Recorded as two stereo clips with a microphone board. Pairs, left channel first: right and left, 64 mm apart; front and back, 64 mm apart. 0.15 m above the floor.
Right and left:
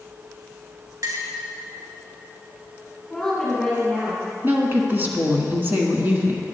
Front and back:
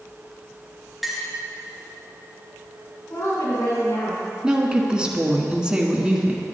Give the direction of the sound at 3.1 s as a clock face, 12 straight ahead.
12 o'clock.